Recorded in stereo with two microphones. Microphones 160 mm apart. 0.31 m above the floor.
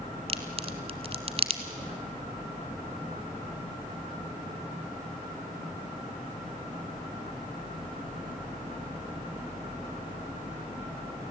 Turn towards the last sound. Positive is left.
turn(degrees=-40)  # may be behind; listen again after turning